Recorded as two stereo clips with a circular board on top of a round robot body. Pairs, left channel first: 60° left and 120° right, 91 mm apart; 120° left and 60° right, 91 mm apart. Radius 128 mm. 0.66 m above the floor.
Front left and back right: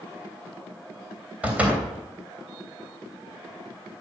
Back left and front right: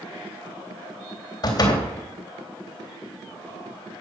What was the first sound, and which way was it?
A door slam, 165° left.